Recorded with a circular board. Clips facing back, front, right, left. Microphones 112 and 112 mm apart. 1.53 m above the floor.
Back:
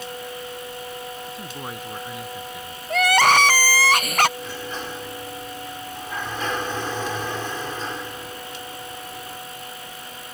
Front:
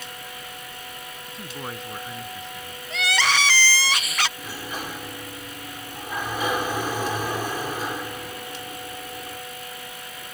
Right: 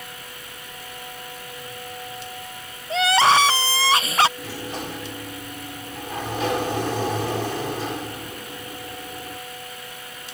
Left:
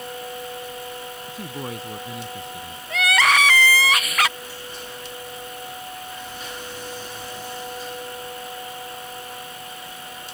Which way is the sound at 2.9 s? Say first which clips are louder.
Back 8 dB, right 4 dB; 150° right.